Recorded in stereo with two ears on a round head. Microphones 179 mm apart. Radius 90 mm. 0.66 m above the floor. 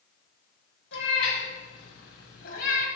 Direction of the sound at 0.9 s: 70° left (ahead or behind).